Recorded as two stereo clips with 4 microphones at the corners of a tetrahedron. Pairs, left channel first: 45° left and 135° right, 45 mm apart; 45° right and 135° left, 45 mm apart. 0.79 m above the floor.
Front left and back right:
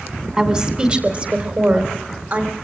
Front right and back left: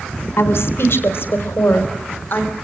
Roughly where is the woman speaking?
Ahead right.